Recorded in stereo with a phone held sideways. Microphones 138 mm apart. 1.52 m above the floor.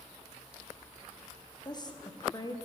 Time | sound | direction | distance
1.6 | a woman speaking | 30° left (ahead or behind) | 0.9 m